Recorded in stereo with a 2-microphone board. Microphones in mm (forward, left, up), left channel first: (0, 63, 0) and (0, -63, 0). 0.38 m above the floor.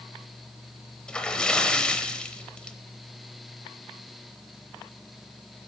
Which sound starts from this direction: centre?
A splash, at 1.1 s.